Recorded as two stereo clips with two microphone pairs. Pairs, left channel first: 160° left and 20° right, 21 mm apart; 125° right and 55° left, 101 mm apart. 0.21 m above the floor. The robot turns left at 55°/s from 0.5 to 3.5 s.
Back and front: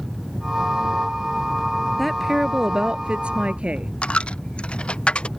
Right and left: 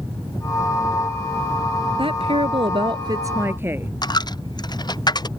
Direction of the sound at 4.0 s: 170° right.